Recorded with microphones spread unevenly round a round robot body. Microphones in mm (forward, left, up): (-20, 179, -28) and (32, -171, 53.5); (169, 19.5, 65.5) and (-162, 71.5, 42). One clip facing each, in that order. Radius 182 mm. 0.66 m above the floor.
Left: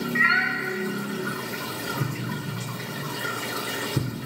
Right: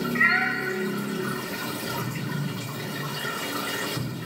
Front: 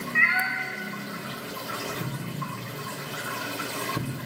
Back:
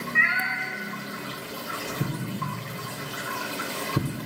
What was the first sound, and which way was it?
A cat meowing, 25° left.